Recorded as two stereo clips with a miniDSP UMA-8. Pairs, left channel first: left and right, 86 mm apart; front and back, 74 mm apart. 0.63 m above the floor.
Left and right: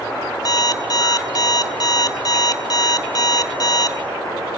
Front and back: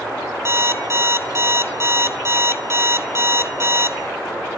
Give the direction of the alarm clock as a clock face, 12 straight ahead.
8 o'clock.